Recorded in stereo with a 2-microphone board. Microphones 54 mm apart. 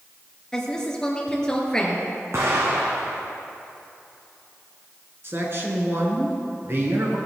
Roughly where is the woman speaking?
Centre.